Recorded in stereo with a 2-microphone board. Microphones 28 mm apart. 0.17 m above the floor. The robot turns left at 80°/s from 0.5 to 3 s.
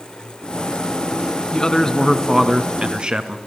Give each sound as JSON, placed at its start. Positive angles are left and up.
{"t": 1.5, "sound": "a man speaking", "azimuth_deg": 55, "distance_m": 1.7}